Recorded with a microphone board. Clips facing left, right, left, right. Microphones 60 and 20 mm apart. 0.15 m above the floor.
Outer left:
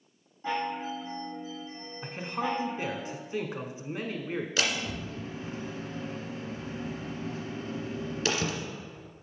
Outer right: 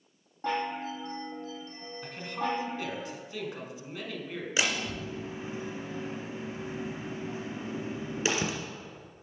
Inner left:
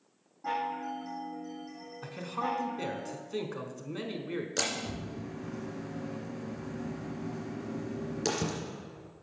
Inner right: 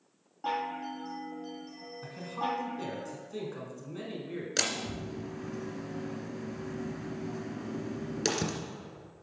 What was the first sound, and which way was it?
A chime, 60° right (ahead or behind).